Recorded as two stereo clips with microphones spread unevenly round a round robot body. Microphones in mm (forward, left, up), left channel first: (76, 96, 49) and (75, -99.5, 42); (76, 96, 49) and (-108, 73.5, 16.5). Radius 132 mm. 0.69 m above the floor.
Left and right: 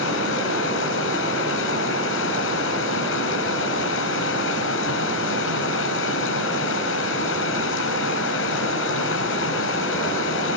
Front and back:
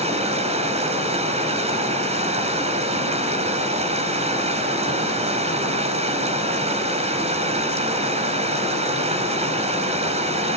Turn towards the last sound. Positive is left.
turn(degrees=130)